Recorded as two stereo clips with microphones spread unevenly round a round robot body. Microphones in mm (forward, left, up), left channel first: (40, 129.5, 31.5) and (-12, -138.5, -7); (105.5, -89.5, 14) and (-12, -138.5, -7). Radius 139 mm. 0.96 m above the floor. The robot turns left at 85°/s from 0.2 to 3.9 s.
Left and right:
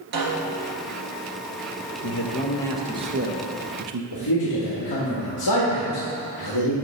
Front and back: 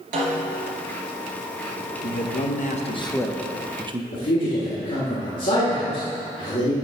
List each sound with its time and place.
0.1 s a snare drum: 160° right, 2.5 m; by 0.7 s 160° left, 2.5 m
2.0 s a man speaking: 50° left, 1.0 m; by 4.0 s 110° right, 1.0 m
4.1 s a man speaking: 65° left, 1.6 m